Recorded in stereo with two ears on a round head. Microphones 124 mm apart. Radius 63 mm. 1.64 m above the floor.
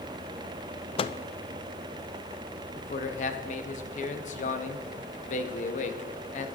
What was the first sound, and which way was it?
A microwave, 40° left (ahead or behind).